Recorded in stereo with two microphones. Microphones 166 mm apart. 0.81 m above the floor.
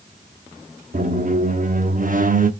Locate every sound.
0.9 s a squeak: 55° right (ahead or behind), 0.9 m